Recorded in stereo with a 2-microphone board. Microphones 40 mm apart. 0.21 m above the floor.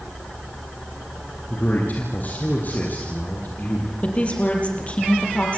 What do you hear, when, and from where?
1.5 s a man speaking: 40° left (ahead or behind), 6 m
4.0 s a woman speaking: 30° left (ahead or behind), 6.5 m